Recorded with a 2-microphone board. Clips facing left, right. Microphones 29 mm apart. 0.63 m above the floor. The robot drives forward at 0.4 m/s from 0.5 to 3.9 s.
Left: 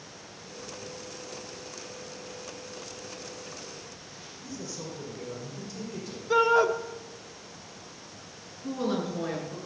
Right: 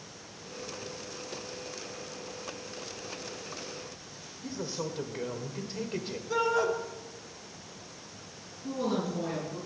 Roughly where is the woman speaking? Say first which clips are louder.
Left 1 dB; left.